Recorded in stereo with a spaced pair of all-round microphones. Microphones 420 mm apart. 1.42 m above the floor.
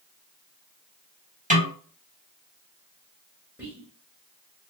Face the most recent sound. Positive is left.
turn(degrees=-5)  # may be behind; listen again after turning